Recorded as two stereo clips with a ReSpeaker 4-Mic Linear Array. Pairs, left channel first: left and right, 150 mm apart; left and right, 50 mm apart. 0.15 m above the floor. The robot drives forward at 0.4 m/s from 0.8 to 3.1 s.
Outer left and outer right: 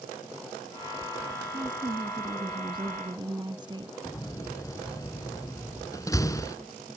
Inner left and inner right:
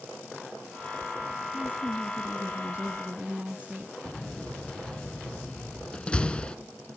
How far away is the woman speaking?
About 1.6 m.